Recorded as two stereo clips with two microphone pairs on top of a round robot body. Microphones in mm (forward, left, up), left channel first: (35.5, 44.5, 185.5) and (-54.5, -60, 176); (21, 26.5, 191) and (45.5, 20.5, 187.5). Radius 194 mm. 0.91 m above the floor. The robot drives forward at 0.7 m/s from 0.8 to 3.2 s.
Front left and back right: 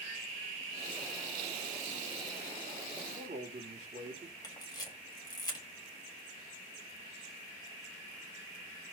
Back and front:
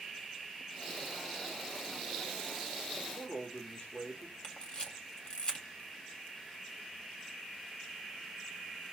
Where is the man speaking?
160° right, 2.5 m.